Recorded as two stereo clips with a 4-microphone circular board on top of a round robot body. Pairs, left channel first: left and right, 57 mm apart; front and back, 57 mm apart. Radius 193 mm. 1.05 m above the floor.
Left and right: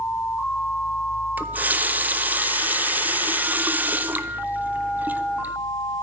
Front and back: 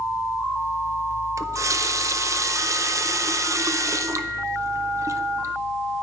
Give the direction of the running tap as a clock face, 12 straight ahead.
5 o'clock.